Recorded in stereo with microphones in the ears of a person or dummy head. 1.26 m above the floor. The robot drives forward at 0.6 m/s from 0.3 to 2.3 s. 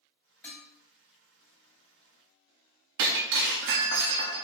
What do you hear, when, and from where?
0.4 s dishes clattering: 5° left (ahead or behind), 1.9 m
3.0 s breaking glass: 65° right (ahead or behind), 1.0 m